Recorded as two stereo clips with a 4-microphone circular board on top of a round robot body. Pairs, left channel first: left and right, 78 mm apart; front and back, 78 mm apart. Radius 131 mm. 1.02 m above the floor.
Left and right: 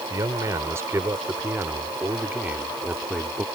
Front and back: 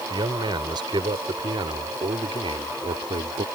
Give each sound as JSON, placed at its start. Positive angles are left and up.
{"t": 0.1, "sound": "a man speaking", "azimuth_deg": -145}